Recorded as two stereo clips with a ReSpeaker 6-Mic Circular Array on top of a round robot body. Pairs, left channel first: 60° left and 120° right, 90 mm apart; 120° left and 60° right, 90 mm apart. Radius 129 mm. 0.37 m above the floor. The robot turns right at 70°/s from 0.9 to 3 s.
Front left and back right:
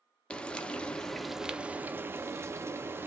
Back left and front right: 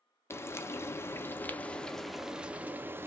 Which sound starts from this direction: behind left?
Frying, at 0.3 s.